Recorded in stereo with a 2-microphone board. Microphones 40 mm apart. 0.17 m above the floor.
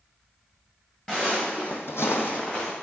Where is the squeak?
No squeak in this recording.